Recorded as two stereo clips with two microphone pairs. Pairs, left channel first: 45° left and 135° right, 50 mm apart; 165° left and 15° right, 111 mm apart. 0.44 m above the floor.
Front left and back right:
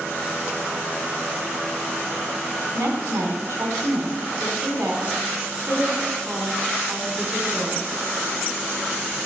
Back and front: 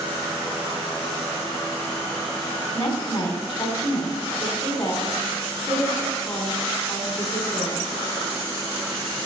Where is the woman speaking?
145° right, 4 m.